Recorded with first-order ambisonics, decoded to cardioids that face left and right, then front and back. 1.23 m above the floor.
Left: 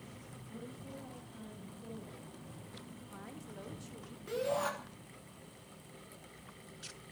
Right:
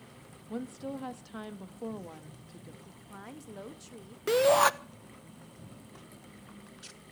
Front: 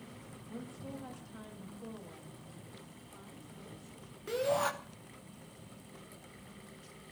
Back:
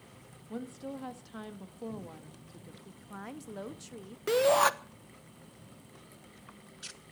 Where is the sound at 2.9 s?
160° right, 1.3 m.